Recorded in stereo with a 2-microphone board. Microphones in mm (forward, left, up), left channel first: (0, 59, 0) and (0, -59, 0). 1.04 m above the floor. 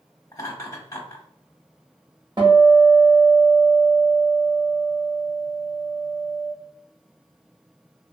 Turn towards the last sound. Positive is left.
turn(degrees=-40)  # may be behind; listen again after turning